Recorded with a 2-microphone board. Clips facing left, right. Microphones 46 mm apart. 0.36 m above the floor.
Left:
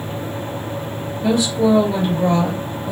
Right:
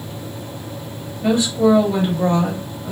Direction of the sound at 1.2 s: 35° right (ahead or behind).